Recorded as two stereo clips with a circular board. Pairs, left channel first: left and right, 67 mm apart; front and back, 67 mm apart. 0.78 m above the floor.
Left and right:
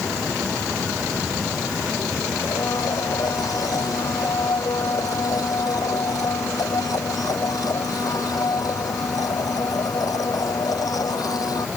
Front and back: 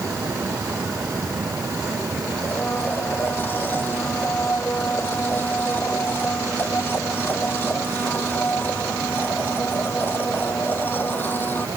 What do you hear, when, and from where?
2.4 s a blender: 60° left